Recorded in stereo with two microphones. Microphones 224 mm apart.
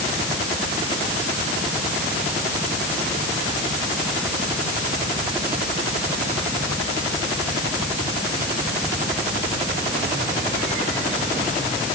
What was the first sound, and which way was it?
Only background noise.